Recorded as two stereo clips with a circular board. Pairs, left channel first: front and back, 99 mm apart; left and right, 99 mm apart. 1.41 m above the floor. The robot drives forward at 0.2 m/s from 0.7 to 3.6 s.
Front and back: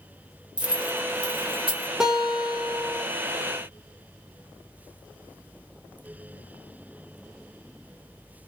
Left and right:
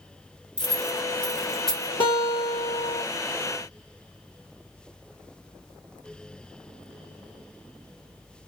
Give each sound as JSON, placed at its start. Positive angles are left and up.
{"t": 0.6, "sound": "keys jangling", "azimuth_deg": 170, "distance_m": 0.8}
{"t": 2.0, "sound": "a guitar", "azimuth_deg": 95, "distance_m": 1.1}